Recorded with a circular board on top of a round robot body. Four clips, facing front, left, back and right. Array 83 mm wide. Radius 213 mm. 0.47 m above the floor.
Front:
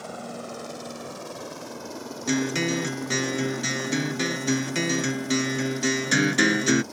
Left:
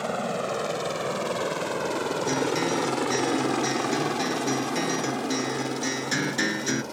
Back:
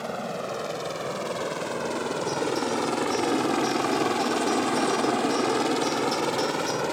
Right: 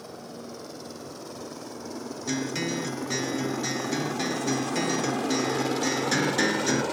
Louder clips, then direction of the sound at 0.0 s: Left 12 dB, back 5 dB; 105° left.